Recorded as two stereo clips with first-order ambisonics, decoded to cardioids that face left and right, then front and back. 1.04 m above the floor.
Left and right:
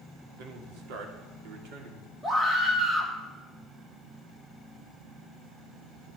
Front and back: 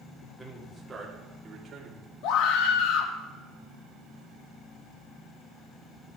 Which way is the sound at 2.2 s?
10° right.